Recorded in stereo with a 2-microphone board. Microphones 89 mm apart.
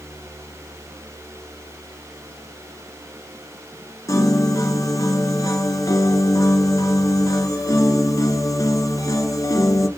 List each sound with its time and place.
4.1 s a piano: 40° left (ahead or behind), 1.5 m